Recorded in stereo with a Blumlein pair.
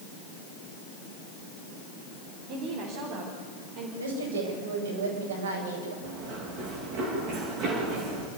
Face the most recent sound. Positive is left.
turn(degrees=-40)